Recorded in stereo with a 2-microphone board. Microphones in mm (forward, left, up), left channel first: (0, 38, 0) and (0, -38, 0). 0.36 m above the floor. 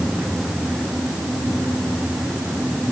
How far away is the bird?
No bird in this recording.